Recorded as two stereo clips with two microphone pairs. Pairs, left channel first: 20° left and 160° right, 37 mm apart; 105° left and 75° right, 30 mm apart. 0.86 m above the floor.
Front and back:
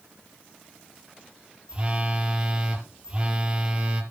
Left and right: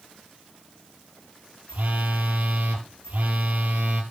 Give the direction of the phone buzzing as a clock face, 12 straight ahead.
3 o'clock.